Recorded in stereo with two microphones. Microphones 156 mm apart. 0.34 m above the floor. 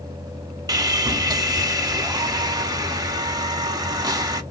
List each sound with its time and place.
0.7 s sawing: 25° right (ahead or behind), 0.6 m